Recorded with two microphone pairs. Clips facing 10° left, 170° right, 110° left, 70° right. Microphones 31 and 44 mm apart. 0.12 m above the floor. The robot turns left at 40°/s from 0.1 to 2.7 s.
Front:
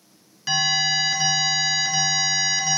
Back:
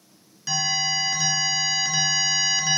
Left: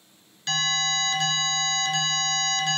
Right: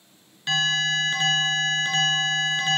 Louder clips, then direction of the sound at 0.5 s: Front 3 dB, right 3 dB; 15° right.